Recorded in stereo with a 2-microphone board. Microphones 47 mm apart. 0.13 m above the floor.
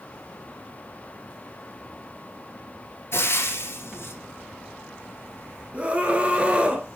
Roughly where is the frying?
Left.